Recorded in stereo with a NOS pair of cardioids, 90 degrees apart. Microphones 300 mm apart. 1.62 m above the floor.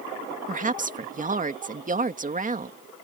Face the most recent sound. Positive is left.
turn(degrees=-25)